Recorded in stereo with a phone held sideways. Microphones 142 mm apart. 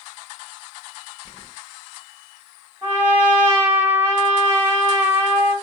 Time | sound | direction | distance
1.2 | keys jangling | 35° left (ahead or behind) | 0.6 m
2.8 | a trumpet | 15° right (ahead or behind) | 3 m